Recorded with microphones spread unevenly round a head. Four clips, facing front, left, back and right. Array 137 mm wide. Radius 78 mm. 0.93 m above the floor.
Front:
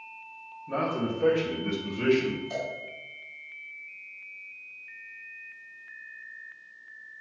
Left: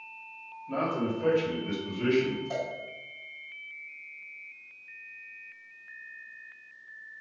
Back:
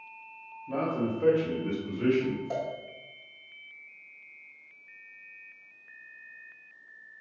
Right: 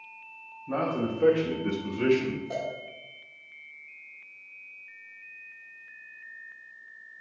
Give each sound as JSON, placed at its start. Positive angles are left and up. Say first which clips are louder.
{"t": 0.7, "sound": "a man speaking", "louder": "right 1 dB, front 1 dB", "azimuth_deg": -95, "distance_m": 2.0}
{"t": 2.5, "sound": "a cowbell", "louder": "even, back 1 dB", "azimuth_deg": -165, "distance_m": 1.7}